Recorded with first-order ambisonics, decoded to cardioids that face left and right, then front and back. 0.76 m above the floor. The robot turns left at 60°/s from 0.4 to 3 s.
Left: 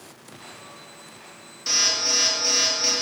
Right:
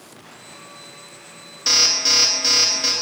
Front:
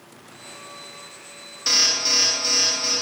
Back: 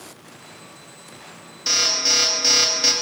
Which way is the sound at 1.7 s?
80° right.